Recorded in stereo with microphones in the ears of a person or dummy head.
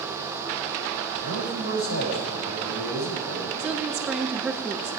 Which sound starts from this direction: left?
A man speaking, at 1.2 s.